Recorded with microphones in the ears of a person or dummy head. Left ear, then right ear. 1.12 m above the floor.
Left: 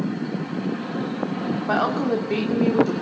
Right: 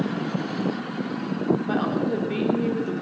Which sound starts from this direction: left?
A woman speaking, at 1.7 s.